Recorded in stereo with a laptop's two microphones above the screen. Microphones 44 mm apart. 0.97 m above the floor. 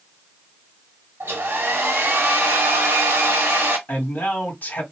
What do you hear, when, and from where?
1.2 s a hair dryer: 65° right (ahead or behind), 0.8 m
3.9 s a man speaking: 45° left (ahead or behind), 1.9 m